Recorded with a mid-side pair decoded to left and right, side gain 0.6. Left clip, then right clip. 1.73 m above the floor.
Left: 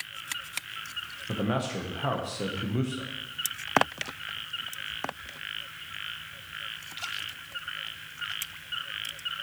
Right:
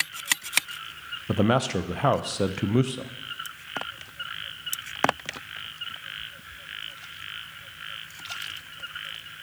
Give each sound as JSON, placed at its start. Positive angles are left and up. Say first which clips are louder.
{"t": 1.3, "sound": "a man speaking", "louder": "right 7 dB", "azimuth_deg": -45, "distance_m": 0.8}